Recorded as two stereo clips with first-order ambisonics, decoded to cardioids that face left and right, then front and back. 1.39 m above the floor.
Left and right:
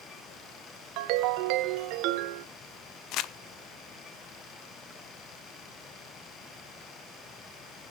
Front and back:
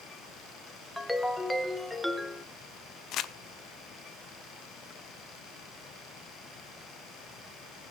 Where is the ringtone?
85° right, 0.9 m.